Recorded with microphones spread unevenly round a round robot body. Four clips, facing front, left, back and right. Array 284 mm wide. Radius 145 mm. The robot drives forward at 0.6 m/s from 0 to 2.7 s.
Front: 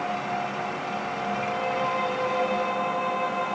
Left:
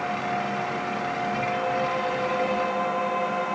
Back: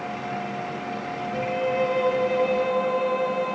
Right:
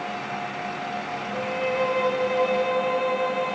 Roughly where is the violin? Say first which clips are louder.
Right 3 dB, back 5 dB; behind right.